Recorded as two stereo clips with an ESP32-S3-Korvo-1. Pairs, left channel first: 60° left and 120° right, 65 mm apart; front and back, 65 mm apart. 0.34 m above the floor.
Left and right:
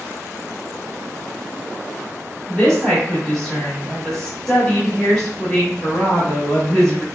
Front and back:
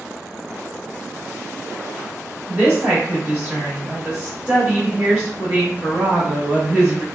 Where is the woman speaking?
125° left, 1.1 m.